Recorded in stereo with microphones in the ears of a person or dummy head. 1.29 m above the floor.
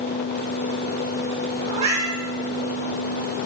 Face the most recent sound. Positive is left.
turn(degrees=-35)  # may be behind; listen again after turning